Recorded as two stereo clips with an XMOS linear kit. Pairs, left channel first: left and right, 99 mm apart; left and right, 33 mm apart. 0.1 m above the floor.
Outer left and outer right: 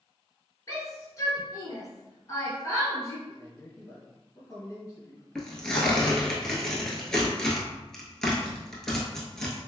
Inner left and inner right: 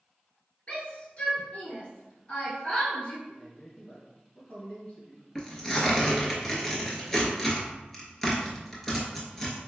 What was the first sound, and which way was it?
A shout, 30° left (ahead or behind).